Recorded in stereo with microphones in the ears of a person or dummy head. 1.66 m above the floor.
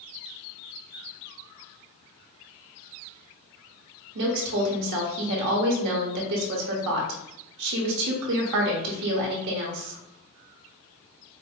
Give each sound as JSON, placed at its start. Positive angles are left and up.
{"t": 4.2, "sound": "a woman speaking", "side_deg": -55, "distance_m": 1.0}